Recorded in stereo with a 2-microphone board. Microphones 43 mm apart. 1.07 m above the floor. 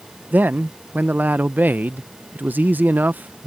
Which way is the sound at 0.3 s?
45° right (ahead or behind).